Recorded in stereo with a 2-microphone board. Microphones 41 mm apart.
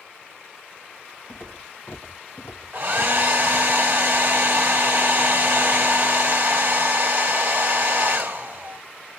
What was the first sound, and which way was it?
Footsteps, 65° left (ahead or behind).